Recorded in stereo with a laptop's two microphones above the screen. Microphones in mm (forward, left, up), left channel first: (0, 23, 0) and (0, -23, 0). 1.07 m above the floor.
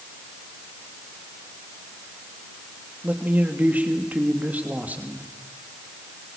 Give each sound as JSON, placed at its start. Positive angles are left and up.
{"t": 3.0, "sound": "a man speaking", "side_deg": -35, "distance_m": 2.5}